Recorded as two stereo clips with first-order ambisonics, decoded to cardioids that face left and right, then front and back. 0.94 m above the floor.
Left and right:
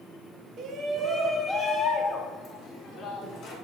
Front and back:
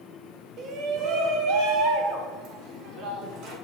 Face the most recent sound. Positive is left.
turn(degrees=145)